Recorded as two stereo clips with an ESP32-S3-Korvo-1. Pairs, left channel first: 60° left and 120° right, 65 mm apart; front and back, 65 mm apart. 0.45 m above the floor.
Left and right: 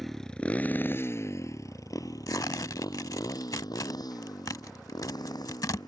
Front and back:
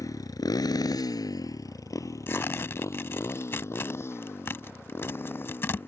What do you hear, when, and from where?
0.0 s a motorcycle: 30° right; by 5.9 s 55° left
2.3 s tearing paper: 50° left